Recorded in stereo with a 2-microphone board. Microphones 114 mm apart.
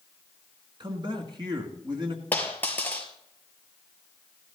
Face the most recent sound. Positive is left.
turn(degrees=15)  # may be behind; listen again after turning